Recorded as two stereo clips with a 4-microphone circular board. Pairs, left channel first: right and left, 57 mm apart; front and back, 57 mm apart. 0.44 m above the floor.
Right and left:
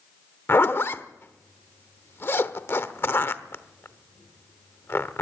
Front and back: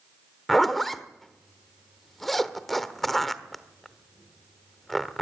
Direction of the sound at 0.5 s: 85° right.